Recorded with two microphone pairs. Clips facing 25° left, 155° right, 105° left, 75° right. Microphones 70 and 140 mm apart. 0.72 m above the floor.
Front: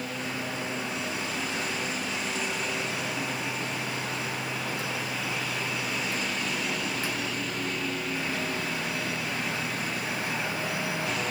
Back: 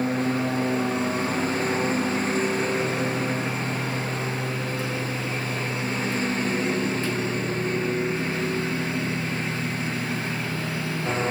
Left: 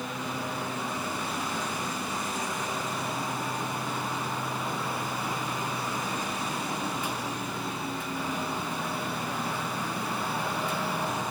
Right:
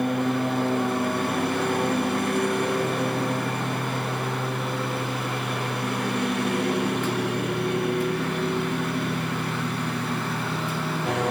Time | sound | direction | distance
0.0 | a lawn mower | 105° right | ?